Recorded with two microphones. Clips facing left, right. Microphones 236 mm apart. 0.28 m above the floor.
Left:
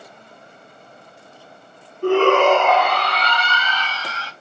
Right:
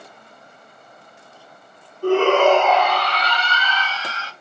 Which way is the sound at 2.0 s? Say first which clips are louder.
Even; 65° left (ahead or behind).